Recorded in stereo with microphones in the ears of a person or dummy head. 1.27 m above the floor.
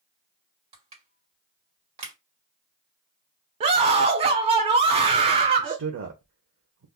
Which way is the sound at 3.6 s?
30° right (ahead or behind).